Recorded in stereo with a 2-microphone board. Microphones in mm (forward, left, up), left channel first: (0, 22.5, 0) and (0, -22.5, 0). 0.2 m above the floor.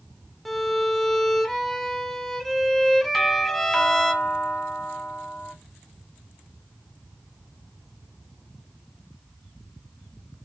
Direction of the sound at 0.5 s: 5° left (ahead or behind).